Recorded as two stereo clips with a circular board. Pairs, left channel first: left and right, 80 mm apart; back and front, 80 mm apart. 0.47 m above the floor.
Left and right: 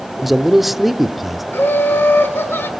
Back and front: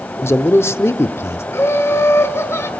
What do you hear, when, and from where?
0.2 s a man speaking: 175° right, 1.0 m
1.5 s laughter: 140° left, 1.8 m